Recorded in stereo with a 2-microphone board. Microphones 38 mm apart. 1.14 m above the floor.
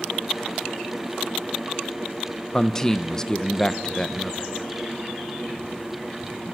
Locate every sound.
2.5 s a man speaking: 15° left (ahead or behind), 0.7 m